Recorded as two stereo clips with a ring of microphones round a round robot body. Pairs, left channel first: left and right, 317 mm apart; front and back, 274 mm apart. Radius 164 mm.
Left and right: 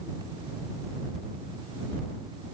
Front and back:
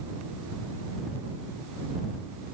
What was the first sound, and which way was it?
Only background noise.